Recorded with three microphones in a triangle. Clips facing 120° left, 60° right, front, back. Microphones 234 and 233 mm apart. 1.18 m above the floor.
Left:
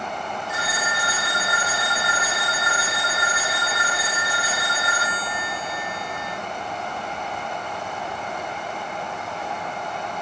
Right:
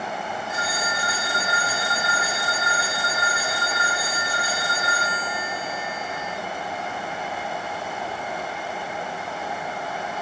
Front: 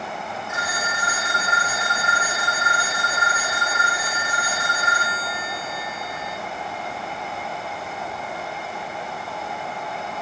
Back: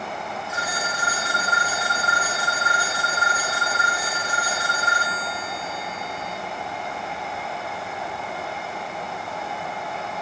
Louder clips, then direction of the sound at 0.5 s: Even, even; 130° left.